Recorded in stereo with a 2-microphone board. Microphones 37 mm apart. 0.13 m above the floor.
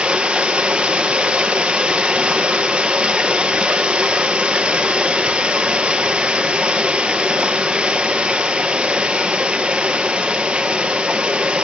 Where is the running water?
25° right (ahead or behind), 1.8 m.